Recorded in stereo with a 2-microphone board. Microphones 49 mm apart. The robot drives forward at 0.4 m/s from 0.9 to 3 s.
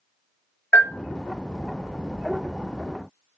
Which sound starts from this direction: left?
A bell, at 0.7 s.